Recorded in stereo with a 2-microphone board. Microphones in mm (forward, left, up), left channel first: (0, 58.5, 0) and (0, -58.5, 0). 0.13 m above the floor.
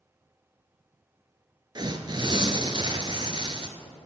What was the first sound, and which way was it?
Tearing paper, 40° right (ahead or behind).